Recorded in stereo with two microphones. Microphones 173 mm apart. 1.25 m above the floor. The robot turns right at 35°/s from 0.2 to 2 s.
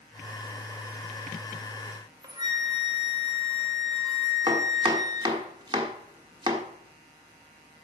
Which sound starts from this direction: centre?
A flute, at 1.9 s.